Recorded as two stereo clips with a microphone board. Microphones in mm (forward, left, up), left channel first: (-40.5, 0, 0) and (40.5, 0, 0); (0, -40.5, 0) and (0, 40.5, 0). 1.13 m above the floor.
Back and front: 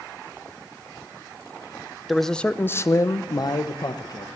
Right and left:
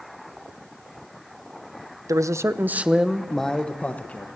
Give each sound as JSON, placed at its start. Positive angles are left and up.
{"t": 2.1, "sound": "a man speaking", "azimuth_deg": 85, "distance_m": 0.6}